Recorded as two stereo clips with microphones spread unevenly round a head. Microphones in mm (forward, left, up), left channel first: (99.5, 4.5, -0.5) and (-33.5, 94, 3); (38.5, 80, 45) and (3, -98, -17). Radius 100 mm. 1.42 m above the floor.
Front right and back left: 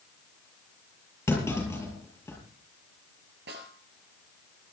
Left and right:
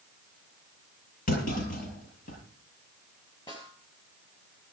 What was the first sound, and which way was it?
A clunk, 40° left.